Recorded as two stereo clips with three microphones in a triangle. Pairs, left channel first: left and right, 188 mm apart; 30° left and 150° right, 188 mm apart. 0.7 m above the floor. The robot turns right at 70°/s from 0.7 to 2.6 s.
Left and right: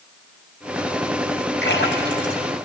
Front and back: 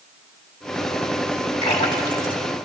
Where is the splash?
80° left, 2.5 m; by 2.4 s 130° left, 2.5 m.